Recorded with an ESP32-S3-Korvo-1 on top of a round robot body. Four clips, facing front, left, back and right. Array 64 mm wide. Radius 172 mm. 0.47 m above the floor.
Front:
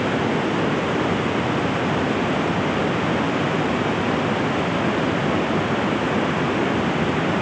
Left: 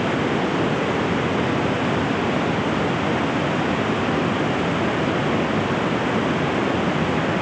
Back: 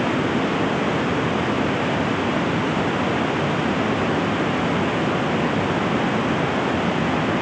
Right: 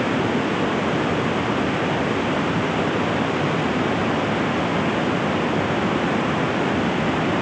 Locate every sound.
Only background noise.